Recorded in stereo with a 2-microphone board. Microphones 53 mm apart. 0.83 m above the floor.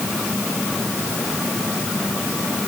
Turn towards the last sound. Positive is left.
No sound to turn to.